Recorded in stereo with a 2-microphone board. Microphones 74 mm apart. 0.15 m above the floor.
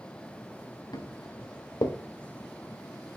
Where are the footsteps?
60° left (ahead or behind), 3 m; by 2.0 s 65° left (ahead or behind), 2 m.